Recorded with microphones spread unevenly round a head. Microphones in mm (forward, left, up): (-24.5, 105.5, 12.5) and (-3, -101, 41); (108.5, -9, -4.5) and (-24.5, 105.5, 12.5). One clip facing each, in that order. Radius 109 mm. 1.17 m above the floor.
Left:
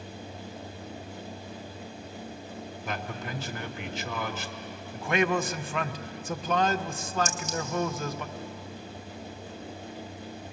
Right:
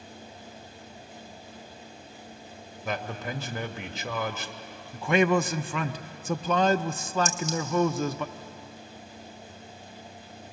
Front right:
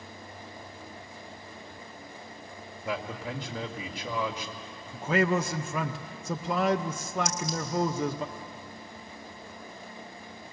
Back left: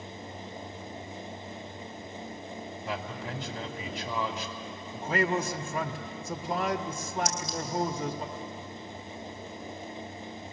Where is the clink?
95° right, 3 m.